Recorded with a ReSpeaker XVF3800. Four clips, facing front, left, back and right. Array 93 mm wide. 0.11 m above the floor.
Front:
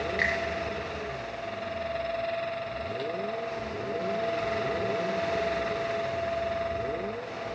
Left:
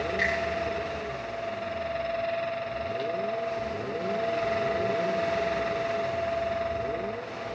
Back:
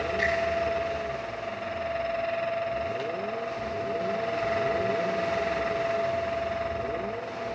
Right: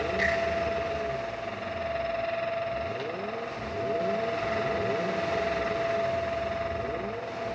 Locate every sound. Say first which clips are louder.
0.2 s a finger snap: even, back 1 dB; 15° left, 7.5 m